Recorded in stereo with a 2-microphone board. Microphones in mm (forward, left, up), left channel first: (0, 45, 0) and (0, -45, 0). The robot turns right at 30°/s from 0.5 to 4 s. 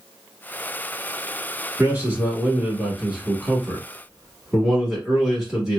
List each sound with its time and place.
1.8 s a man speaking: 20° right (ahead or behind), 1.2 m; by 5.8 s 10° right (ahead or behind), 1.2 m